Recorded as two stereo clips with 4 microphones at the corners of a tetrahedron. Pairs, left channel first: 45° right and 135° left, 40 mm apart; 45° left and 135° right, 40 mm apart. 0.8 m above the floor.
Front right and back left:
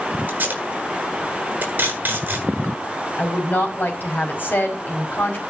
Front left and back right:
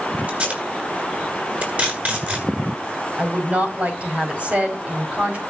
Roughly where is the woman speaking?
Right.